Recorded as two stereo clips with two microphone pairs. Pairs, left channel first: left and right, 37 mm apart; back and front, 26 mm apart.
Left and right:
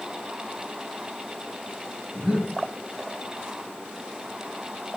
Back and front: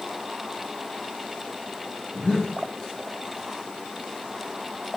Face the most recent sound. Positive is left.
turn(degrees=-130)